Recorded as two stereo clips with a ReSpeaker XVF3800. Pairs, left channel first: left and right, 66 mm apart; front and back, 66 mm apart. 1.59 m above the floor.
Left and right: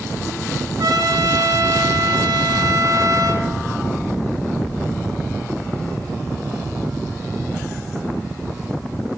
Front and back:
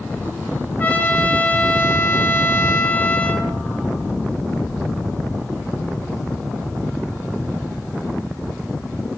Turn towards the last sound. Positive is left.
turn(degrees=-65)